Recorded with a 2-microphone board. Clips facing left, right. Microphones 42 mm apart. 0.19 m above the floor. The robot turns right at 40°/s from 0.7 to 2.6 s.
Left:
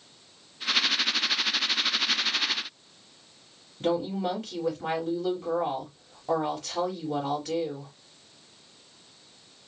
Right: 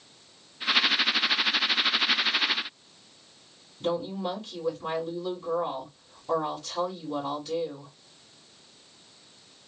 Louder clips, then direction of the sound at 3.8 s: Left 2 dB; 60° left (ahead or behind).